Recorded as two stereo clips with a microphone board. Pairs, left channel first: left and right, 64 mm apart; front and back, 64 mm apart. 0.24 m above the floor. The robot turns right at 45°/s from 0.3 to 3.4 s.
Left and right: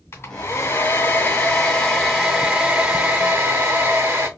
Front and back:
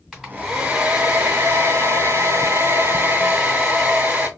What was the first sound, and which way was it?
A hair dryer, 85° left.